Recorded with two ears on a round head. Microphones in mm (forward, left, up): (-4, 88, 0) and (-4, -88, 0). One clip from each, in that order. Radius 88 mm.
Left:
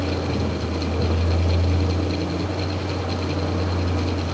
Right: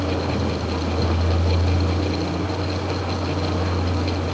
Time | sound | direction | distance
0.0 | a vehicle | 25° right (ahead or behind) | ?